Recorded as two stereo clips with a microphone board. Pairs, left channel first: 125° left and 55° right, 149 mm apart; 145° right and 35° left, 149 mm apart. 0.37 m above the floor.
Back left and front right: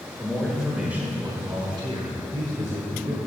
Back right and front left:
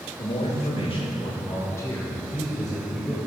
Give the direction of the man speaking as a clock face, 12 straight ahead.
5 o'clock.